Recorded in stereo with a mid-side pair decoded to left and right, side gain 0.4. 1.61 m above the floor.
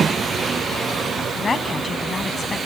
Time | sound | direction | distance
1.4 | a woman speaking | 35° left | ?